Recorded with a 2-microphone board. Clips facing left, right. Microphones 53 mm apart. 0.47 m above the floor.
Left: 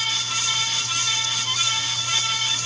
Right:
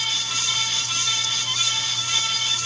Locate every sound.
Only background noise.